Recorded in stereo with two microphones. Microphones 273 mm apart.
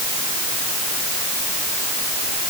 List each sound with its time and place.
Only background noise.